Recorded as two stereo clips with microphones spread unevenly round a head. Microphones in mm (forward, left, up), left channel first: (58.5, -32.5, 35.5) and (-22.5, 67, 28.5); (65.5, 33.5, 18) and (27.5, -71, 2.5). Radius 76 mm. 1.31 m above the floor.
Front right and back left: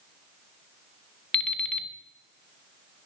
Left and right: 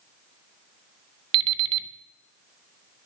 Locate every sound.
1.3 s an alarm clock: 120° right, 0.5 m